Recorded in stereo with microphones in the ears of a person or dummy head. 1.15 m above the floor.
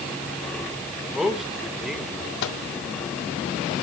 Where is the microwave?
60° left (ahead or behind), 2 m.